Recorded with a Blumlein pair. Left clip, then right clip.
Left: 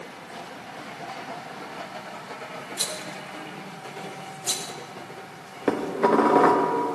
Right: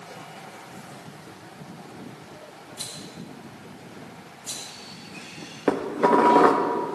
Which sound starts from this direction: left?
A rattle, at 2.8 s.